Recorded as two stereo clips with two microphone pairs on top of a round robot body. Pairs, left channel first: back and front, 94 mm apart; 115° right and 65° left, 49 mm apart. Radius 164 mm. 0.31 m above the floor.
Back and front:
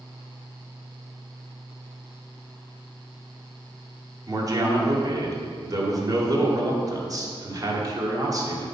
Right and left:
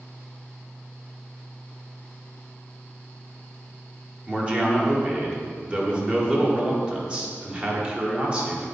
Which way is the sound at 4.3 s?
15° left.